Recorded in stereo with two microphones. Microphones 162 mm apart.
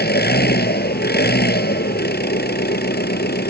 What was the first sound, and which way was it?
An engine running, 80° left.